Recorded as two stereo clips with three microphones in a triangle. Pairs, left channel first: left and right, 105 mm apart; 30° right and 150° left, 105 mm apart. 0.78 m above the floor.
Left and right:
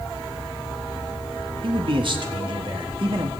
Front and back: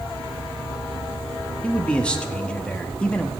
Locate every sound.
1.6 s a man speaking: 110° right, 1.4 m